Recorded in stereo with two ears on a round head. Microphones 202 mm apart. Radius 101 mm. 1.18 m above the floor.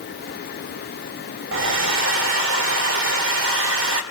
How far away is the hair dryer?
About 1.8 m.